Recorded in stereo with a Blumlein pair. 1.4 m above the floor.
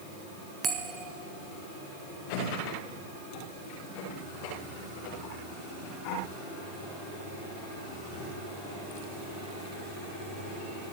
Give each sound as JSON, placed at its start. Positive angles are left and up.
{"t": 0.6, "sound": "a bell", "azimuth_deg": -20, "distance_m": 1.0}